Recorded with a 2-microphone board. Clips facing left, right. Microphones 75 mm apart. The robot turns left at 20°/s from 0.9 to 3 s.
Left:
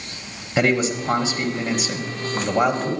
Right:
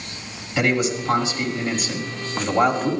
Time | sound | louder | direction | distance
0.6 | a man speaking | left 1 dB | 50° left | 1.4 m